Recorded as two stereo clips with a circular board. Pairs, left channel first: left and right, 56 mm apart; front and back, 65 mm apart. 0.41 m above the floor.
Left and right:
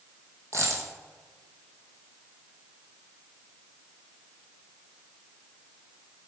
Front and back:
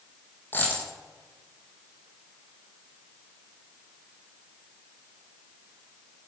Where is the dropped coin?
60° right, 3.5 m.